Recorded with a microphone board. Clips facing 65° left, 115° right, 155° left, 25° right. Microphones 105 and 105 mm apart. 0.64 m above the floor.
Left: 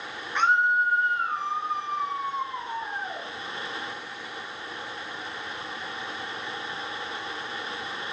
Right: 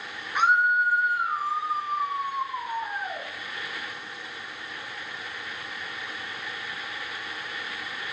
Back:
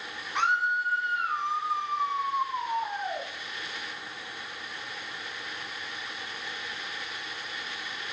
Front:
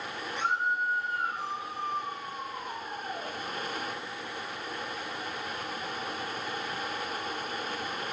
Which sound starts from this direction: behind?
A scream, at 0.3 s.